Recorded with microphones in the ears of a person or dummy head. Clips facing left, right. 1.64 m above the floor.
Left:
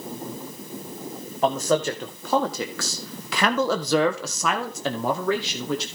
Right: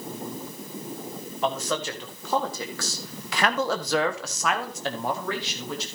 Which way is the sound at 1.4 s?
35° left (ahead or behind).